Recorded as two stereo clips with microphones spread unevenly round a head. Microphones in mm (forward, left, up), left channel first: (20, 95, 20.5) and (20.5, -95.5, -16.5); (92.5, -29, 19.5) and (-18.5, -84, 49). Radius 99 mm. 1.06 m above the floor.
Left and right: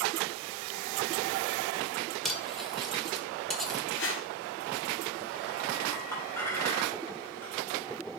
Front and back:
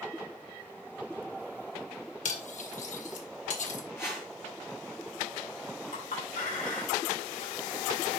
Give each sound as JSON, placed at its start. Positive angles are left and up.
{"t": 2.2, "sound": "cutlery clinking", "azimuth_deg": 5, "distance_m": 1.8}
{"t": 4.0, "sound": "a whoosh", "azimuth_deg": 110, "distance_m": 2.0}
{"t": 5.9, "sound": "a clink", "azimuth_deg": 15, "distance_m": 3.5}